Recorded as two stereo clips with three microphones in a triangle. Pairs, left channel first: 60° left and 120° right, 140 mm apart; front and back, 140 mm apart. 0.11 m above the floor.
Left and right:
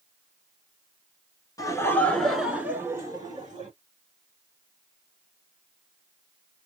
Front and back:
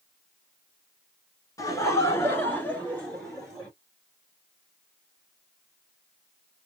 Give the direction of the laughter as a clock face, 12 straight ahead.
11 o'clock.